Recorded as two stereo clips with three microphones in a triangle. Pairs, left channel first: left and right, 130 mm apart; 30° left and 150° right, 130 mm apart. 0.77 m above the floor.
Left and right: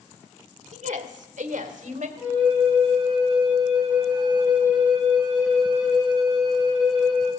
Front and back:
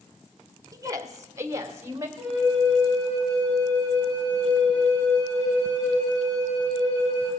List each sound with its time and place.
0.7 s a woman speaking: 90° right, 1.1 m; by 2.1 s 80° right, 2.5 m
2.2 s a flute: 10° right, 7 m